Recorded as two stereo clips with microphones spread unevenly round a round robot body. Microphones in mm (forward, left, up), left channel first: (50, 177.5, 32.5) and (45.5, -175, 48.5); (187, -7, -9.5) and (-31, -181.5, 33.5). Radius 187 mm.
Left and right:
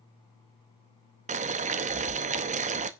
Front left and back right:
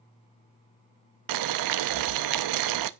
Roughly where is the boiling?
Behind.